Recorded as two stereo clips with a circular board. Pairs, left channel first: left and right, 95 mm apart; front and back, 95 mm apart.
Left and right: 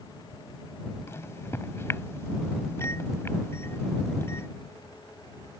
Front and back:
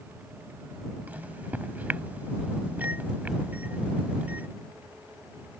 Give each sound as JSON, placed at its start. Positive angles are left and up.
{"t": 1.1, "sound": "a microwave", "azimuth_deg": 120}